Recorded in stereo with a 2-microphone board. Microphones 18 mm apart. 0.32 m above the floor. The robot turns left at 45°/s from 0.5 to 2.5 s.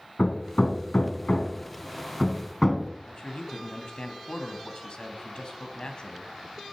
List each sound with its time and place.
0.2 s hammering: 60° left (ahead or behind), 2 m; by 2.9 s 25° left (ahead or behind), 2 m
3.1 s a man speaking: 55° left (ahead or behind), 2.5 m